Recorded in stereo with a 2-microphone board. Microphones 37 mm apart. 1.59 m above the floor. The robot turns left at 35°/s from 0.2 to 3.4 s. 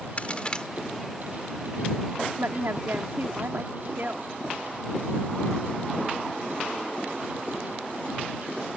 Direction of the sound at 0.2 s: 40° left (ahead or behind).